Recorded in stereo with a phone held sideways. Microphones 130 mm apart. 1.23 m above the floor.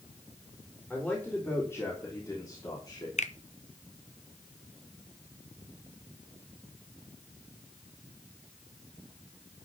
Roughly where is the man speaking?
Centre.